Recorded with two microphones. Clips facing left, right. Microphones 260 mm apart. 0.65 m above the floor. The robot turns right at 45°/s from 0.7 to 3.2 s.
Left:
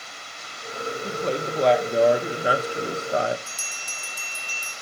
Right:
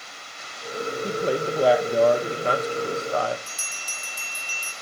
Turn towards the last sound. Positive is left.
turn(degrees=55)  # may be behind; listen again after turning